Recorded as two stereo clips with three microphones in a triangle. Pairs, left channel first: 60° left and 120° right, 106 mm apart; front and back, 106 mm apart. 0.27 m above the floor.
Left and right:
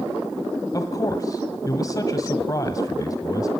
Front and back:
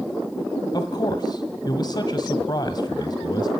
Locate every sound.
0.7 s a man speaking: 20° left, 1.5 m